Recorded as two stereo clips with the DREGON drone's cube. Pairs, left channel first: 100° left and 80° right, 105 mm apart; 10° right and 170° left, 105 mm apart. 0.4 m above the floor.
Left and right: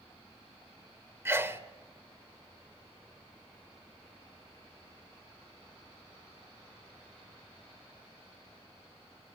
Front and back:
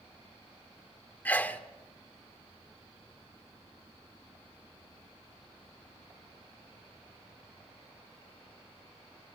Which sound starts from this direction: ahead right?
A sneeze, at 1.2 s.